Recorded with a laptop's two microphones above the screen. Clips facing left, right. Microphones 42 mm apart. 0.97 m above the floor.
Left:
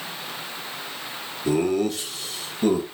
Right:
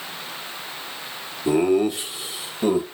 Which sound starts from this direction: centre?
Laughter, at 1.4 s.